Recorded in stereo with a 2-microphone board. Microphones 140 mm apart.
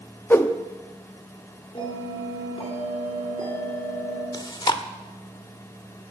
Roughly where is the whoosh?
Centre.